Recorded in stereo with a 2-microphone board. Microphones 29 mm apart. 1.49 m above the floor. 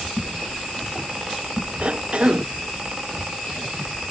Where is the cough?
35° right (ahead or behind).